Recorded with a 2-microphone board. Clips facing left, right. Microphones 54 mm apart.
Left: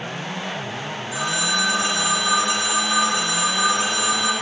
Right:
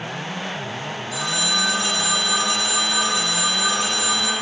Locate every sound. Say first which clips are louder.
1.1 s a phone ringing: left 2 dB; 25° left (ahead or behind), 1.2 m